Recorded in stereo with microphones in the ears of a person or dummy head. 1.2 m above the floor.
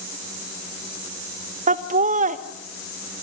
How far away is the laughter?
About 1.1 m.